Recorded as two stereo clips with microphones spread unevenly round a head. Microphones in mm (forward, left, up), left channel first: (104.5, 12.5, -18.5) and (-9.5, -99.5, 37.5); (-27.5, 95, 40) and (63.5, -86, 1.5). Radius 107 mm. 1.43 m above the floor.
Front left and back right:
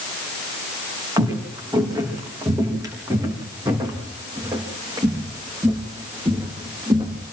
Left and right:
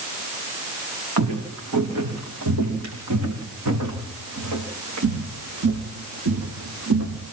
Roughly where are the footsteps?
Right.